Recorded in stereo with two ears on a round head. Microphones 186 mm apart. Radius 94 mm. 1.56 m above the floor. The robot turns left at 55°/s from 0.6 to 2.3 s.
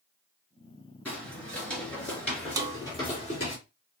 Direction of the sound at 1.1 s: 5° left (ahead or behind).